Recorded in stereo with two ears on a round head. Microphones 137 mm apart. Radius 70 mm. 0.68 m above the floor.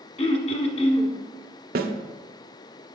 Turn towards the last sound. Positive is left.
turn(degrees=-70)  # may be behind; listen again after turning